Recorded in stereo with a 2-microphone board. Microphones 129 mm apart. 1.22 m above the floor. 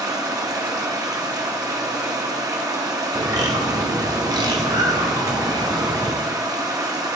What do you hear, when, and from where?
0.0 s running water: 30° right (ahead or behind), 1.0 m
3.1 s a bird: 30° right (ahead or behind), 1.1 m